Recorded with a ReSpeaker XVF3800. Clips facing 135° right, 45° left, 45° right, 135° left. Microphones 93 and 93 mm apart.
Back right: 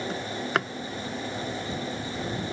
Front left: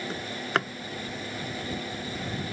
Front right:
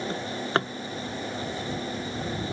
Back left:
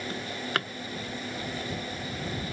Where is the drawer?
45° right.